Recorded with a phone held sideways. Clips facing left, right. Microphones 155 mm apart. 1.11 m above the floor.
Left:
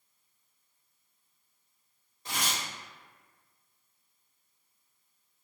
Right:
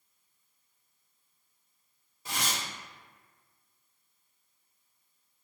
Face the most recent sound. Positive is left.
turn(degrees=-10)  # may be behind; listen again after turning